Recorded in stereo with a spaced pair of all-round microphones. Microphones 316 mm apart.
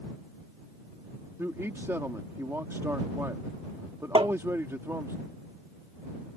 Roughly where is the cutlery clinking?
I don't hear cutlery clinking.